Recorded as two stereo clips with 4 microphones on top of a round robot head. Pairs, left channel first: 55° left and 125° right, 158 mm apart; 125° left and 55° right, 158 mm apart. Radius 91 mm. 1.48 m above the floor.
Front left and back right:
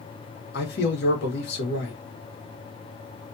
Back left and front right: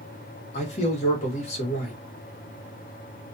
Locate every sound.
0.5 s a man speaking: 75° left, 1.6 m